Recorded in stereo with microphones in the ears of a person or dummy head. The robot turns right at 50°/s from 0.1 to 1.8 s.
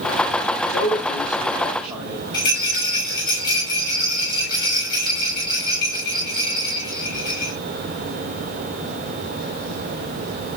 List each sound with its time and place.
0.7 s a man speaking: 50° left (ahead or behind), 7 m; by 2.2 s 5° right (ahead or behind), 7 m
2.3 s a rattle: 25° left (ahead or behind), 8.5 m